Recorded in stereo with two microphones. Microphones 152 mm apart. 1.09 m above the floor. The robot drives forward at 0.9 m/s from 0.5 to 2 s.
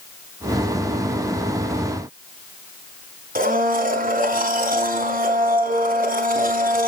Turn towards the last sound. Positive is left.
turn(degrees=-65)  # may be behind; listen again after turning